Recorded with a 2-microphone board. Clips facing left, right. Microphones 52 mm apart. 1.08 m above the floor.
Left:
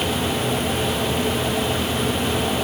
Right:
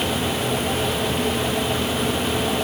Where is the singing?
No singing in this recording.